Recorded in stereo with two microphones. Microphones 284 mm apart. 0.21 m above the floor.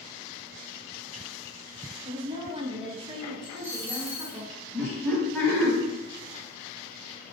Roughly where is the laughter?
Centre.